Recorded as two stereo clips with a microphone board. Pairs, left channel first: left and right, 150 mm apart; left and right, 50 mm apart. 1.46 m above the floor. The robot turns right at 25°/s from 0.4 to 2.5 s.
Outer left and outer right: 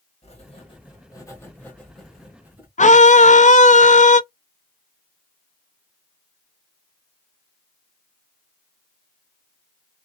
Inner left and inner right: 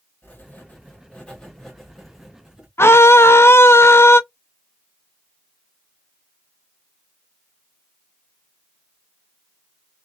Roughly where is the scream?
Left.